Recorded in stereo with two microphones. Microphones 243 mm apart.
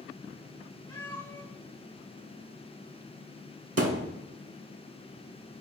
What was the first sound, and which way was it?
A cat meowing, 20° left (ahead or behind).